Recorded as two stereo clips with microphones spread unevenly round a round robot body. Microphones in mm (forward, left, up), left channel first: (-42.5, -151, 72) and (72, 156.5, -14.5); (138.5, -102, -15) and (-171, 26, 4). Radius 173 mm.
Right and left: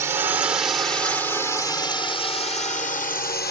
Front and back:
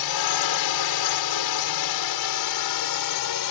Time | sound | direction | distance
0.0 | a drone | 5° right | ?